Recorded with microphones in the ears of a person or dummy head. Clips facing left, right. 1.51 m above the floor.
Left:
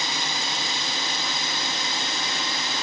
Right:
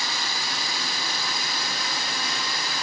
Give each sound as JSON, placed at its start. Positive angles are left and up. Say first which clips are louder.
{"t": 0.0, "sound": "a drone", "louder": "left 2 dB", "side_deg": 20}